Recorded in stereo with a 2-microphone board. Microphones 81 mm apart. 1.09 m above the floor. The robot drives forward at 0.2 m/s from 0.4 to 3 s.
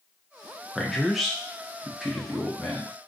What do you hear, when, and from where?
0.8 s a man speaking: centre (ahead or behind), 0.5 m